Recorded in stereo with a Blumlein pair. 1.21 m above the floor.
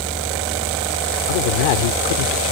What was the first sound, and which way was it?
A fan, 5° left.